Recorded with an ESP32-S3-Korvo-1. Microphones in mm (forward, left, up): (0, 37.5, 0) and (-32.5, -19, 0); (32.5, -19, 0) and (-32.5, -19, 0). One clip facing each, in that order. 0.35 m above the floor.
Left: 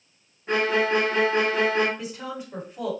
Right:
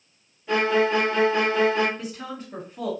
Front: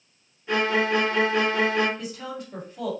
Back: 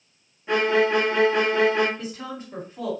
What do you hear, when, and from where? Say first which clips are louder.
0.5 s a violin: right 1 dB, back 3 dB; 110° left, 1.2 m
2.0 s a woman speaking: left 1 dB, even; 130° left, 2.0 m